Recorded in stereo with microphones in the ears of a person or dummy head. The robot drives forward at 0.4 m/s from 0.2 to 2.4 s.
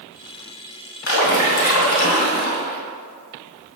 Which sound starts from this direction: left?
A splash, at 1.1 s.